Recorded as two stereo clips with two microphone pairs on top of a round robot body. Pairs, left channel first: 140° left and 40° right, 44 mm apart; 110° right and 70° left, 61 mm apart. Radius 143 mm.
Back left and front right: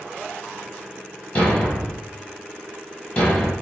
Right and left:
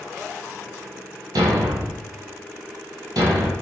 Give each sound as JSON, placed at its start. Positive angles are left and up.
{"t": 1.4, "sound": "a thud", "azimuth_deg": 85, "distance_m": 1.1}